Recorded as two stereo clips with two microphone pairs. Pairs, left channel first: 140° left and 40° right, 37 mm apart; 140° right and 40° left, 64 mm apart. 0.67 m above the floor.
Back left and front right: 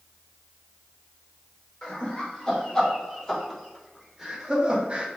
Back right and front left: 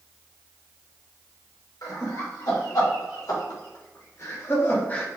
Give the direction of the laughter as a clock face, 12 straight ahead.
5 o'clock.